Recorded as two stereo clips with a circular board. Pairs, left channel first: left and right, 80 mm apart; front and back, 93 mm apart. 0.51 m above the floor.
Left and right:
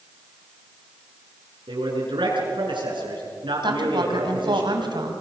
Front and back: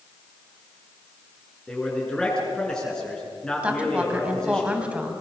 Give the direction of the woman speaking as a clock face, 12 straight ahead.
3 o'clock.